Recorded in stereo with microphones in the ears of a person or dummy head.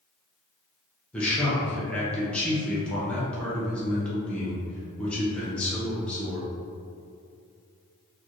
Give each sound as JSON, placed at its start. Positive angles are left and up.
{"t": 1.1, "sound": "a man speaking", "side_deg": 10, "distance_m": 0.7}